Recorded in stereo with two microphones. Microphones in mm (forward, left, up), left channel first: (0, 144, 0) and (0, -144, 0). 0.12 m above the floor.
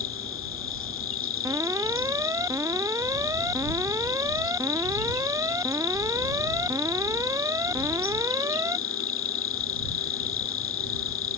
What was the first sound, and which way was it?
An insect, 50° left (ahead or behind).